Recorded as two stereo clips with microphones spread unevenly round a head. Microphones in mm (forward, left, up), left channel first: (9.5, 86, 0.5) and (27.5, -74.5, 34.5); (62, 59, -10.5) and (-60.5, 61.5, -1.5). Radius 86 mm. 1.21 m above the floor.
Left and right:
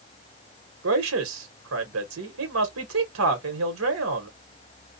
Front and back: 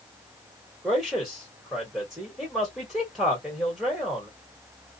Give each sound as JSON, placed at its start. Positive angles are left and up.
{"t": 0.8, "sound": "a man speaking", "azimuth_deg": -95, "distance_m": 1.1}